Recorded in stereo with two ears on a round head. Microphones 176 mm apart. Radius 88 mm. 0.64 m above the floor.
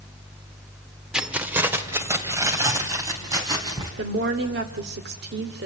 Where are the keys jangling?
5° right (ahead or behind), 1.1 m; by 3.9 s 20° right (ahead or behind), 4.5 m.